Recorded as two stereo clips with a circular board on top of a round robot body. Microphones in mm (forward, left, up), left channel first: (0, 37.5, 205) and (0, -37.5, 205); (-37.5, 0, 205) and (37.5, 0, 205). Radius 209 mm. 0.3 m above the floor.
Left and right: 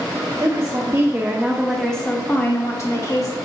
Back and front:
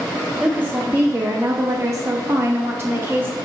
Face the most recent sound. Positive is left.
turn(degrees=60)